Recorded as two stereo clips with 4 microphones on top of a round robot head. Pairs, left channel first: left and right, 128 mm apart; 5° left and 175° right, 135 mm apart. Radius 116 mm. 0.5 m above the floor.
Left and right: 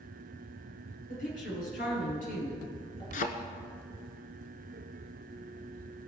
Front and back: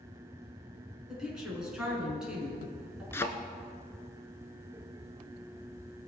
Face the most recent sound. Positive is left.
turn(degrees=75)